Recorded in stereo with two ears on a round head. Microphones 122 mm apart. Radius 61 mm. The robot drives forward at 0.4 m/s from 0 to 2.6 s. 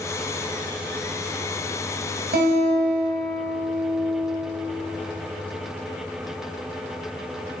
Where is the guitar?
80° right, 3 m.